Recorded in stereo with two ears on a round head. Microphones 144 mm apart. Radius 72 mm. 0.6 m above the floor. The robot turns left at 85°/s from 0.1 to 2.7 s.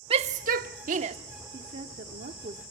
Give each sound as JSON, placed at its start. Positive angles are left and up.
{"t": 0.1, "sound": "a shout", "azimuth_deg": -40, "distance_m": 1.0}
{"t": 1.5, "sound": "a woman speaking", "azimuth_deg": -40, "distance_m": 1.2}